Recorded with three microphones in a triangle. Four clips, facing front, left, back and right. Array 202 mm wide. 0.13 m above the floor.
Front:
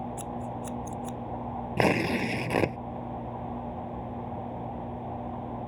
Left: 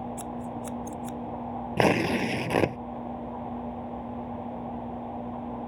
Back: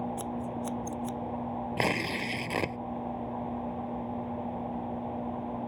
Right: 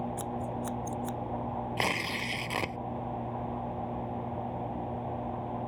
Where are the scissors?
150° right.